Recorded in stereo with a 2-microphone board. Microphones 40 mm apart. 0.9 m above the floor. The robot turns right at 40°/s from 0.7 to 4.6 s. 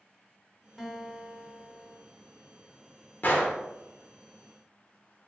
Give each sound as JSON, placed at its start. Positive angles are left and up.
{"t": 0.8, "sound": "a guitar", "azimuth_deg": -175, "distance_m": 0.7}
{"t": 3.2, "sound": "a gunshot", "side_deg": 45, "distance_m": 0.7}